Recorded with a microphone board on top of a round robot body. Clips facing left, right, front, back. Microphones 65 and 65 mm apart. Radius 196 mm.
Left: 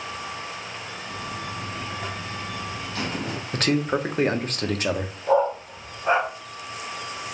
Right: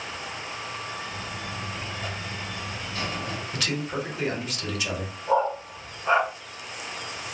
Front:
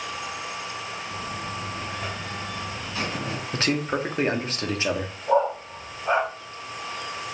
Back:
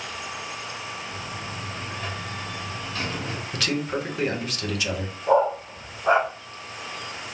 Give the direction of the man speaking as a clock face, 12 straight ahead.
10 o'clock.